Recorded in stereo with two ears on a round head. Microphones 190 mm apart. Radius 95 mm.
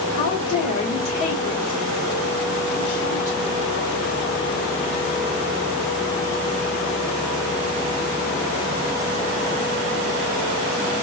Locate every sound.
0.1 s a woman speaking: 30° left (ahead or behind), 3 m; by 3.5 s 65° left (ahead or behind), 3 m